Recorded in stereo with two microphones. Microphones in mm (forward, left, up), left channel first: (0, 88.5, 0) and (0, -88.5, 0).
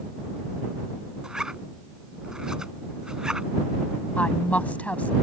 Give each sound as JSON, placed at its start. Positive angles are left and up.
{"t": 1.2, "sound": "a zipper", "side_deg": -5}
{"t": 4.2, "sound": "a woman speaking", "side_deg": 10}